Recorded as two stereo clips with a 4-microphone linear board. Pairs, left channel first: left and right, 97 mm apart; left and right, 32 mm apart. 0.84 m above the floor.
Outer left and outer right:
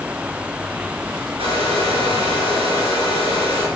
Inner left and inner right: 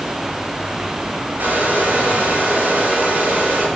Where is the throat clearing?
I don't hear throat clearing.